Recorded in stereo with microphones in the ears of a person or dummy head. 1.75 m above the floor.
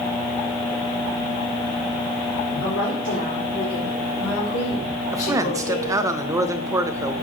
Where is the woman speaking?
75° left (ahead or behind), 4 m; by 6.1 s 45° left (ahead or behind), 5 m.